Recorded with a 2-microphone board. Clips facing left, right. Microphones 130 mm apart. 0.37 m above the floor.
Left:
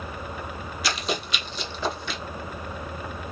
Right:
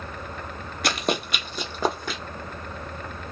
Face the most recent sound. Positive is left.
turn(degrees=-45)  # may be behind; listen again after turning